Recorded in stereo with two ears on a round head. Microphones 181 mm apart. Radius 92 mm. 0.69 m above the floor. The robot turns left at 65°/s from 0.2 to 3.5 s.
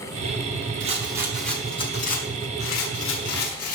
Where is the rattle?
140° right, 6.5 m; by 3.8 s 45° left, 6.5 m.